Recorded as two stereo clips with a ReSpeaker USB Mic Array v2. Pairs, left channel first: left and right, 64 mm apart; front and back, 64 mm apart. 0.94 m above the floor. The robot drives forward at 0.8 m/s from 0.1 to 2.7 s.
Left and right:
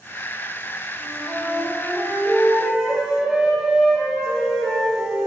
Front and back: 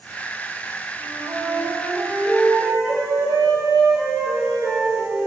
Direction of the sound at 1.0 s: 160° right.